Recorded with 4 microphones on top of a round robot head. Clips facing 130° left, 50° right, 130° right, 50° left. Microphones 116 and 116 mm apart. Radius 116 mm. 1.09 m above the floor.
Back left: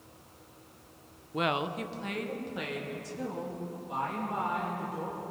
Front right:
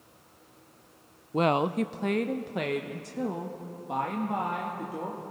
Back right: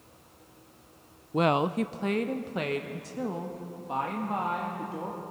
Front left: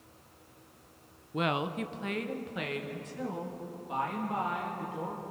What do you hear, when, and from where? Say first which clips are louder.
1.3 s a woman speaking: front right 6 dB, back right 7 dB; 95° right, 0.5 m; by 5.2 s 75° right, 2.5 m